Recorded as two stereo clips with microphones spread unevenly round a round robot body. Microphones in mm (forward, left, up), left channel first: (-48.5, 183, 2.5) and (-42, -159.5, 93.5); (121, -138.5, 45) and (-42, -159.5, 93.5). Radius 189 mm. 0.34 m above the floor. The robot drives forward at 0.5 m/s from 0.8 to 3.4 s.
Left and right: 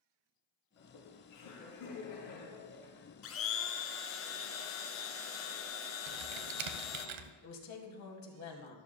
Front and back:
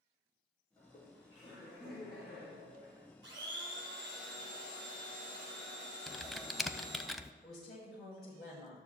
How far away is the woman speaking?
About 2.5 m.